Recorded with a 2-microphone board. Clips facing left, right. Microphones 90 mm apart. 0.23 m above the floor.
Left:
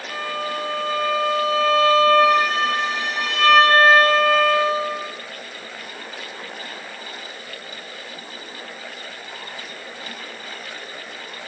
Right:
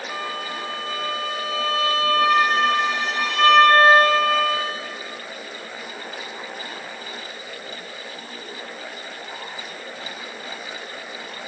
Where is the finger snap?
I don't hear a finger snap.